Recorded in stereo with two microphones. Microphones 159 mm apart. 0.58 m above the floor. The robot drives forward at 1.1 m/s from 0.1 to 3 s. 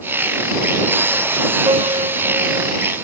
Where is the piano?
35° right (ahead or behind); by 2.8 s 40° right (ahead or behind).